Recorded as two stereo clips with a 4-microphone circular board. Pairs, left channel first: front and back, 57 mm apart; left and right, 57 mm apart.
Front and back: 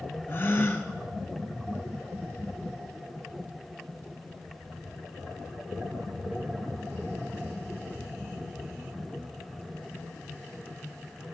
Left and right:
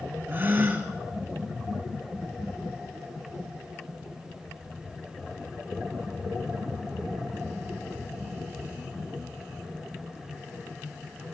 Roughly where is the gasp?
Ahead right.